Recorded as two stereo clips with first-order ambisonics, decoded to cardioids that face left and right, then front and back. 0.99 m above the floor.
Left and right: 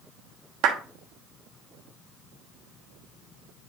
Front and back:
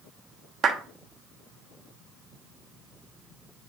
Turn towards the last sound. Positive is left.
turn(degrees=-125)